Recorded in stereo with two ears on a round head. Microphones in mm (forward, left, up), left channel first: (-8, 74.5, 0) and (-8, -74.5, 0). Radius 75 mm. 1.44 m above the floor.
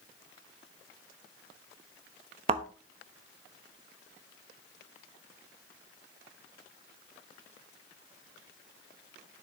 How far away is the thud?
About 0.8 m.